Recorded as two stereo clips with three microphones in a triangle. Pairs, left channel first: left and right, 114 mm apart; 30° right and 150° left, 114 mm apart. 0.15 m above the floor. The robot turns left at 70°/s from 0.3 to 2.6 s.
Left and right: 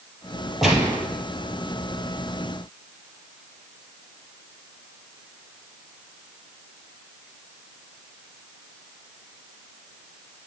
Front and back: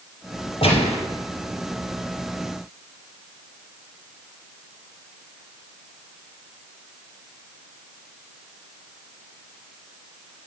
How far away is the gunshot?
About 2.5 m.